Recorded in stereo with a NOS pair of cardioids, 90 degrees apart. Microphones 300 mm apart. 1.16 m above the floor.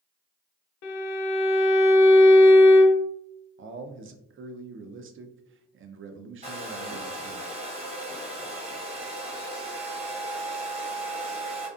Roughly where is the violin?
Ahead left.